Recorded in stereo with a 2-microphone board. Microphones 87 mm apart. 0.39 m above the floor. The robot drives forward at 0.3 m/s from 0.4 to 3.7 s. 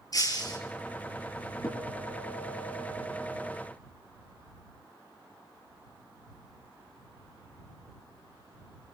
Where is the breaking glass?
45° left (ahead or behind), 5 m.